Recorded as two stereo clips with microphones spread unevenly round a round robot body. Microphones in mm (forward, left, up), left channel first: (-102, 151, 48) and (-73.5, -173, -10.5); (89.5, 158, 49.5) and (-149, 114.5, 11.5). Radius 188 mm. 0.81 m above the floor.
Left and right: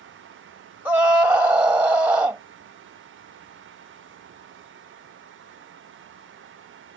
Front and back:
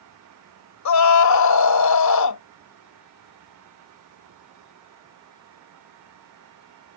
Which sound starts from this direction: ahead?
A scream, at 0.8 s.